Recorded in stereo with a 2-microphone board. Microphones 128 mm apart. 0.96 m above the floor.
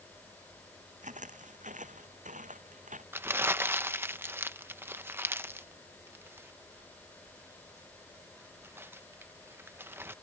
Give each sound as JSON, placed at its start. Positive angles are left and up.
{"t": 1.0, "sound": "footsteps", "side_deg": -75}
{"t": 3.1, "sound": "crumpling", "side_deg": -20}